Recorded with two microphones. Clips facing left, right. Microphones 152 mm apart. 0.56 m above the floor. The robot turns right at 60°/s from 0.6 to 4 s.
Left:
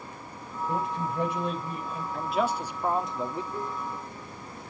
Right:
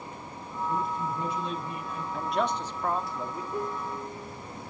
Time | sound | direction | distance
0.7 | a man speaking | 80° left | 3.5 m
2.1 | a man speaking | 5° right (ahead or behind) | 0.9 m
3.5 | a piano | 20° right (ahead or behind) | 1.3 m